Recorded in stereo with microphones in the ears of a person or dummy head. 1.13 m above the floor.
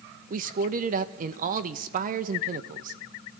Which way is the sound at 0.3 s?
30° right (ahead or behind).